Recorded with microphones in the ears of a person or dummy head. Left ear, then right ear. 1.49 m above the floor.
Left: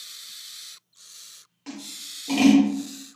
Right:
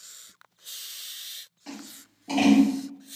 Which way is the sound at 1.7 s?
10° left (ahead or behind).